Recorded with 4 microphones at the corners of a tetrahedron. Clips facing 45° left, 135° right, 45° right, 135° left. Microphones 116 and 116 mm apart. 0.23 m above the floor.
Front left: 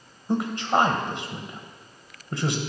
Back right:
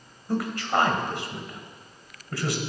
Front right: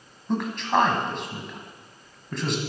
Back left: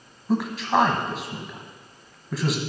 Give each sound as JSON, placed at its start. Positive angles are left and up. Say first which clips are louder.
{"t": 0.3, "sound": "a man speaking", "louder": "front left 2 dB, back left 1 dB", "azimuth_deg": 55, "distance_m": 1.1}